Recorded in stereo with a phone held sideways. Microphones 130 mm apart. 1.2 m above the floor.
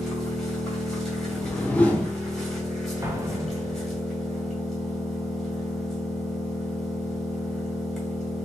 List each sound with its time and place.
0.0 s an engine running: centre (ahead or behind), 1.9 m
1.3 s a whoosh: 10° left (ahead or behind), 0.8 m
3.0 s an explosion: 20° right (ahead or behind), 0.8 m